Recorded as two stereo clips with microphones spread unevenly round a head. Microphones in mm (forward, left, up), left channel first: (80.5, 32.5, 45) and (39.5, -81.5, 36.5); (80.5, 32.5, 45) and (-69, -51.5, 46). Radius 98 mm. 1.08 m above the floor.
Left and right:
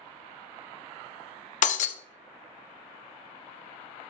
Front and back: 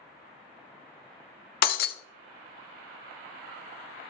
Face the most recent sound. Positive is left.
turn(degrees=65)